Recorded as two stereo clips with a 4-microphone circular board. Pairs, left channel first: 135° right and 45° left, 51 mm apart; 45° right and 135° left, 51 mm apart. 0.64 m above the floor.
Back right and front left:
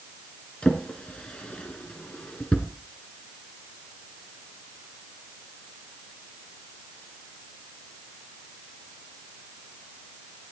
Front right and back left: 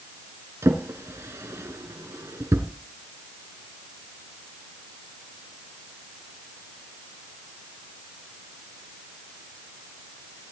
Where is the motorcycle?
I don't hear a motorcycle.